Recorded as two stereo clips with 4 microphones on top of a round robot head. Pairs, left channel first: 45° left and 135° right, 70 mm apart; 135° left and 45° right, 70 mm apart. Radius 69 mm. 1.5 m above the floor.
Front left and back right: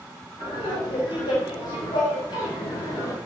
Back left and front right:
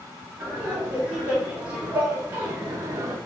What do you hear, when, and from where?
0.4 s laughter: 30° left, 4 m; by 3.1 s 5° left, 1.1 m